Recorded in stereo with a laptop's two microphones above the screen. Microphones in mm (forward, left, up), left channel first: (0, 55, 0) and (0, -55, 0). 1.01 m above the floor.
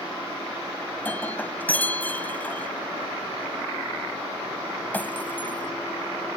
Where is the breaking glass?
15° left (ahead or behind).